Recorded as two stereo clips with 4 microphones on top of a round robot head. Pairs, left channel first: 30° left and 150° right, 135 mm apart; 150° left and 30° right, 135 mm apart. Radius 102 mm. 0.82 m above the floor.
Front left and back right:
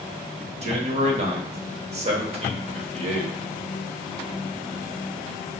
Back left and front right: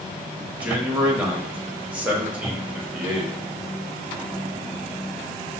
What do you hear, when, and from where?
0.6 s a man speaking: 115° right, 1.2 m